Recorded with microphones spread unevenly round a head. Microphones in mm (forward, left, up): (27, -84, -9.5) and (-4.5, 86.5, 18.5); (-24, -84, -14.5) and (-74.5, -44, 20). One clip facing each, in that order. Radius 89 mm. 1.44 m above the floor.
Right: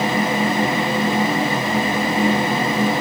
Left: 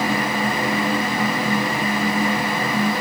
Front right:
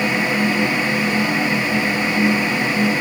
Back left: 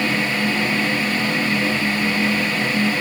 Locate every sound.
Only background noise.